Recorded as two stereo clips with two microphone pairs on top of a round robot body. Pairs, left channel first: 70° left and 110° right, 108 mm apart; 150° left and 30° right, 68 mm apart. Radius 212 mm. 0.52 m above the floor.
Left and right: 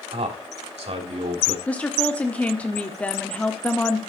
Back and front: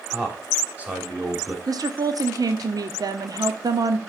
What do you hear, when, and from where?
0.1 s a man speaking: 100° right, 3.5 m
1.7 s a woman speaking: 5° right, 1.5 m